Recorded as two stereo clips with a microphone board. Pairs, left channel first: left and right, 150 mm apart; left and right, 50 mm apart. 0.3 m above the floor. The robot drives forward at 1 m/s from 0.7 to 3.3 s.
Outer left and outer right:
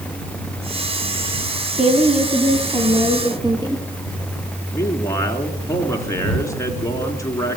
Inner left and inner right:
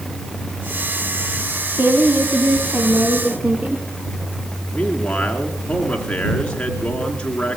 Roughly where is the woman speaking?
Right.